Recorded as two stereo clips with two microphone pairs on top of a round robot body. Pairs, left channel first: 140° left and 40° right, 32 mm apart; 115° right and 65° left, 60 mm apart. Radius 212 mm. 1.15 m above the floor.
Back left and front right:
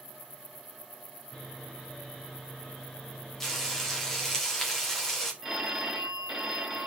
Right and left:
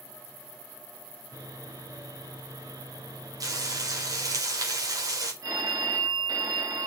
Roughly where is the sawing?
Left.